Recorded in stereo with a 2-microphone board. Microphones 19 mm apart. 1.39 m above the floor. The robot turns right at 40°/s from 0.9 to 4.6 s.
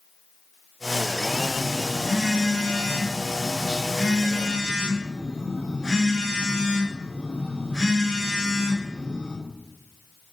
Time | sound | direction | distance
1.3 | a phone buzzing | 175° right | 4.5 m